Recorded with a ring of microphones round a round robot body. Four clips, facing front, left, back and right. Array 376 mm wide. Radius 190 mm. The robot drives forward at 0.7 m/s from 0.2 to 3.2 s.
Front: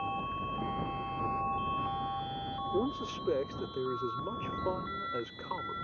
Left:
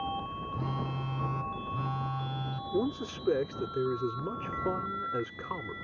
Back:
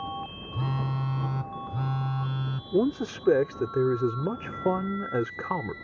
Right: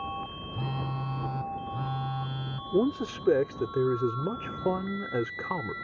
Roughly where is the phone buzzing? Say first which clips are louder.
Right 2 dB, back 3 dB; behind.